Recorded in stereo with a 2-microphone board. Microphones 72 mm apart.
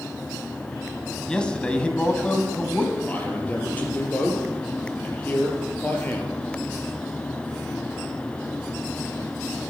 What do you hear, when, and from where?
1.3 s a man speaking: 15° left (ahead or behind), 1.7 m; by 3.0 s 20° left (ahead or behind), 1.8 m
3.1 s a man speaking: 25° left (ahead or behind), 4 m